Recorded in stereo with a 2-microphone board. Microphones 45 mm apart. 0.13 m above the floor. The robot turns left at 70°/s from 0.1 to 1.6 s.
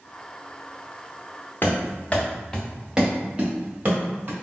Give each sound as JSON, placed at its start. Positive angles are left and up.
{"t": 1.6, "sound": "running footsteps", "side_deg": 45, "distance_m": 0.9}